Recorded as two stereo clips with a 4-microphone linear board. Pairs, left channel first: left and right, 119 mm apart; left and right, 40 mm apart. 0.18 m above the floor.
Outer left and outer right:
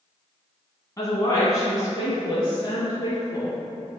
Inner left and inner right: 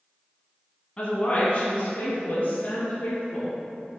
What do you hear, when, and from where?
1.0 s a woman speaking: 30° left (ahead or behind), 1.4 m; by 3.6 s 25° left (ahead or behind), 3.5 m